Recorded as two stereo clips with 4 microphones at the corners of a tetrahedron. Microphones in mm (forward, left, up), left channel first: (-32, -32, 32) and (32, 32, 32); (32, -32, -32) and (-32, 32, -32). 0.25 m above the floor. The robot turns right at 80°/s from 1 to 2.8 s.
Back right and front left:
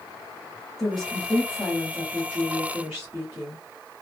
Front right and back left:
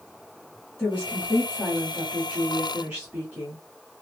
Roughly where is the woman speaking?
Ahead right.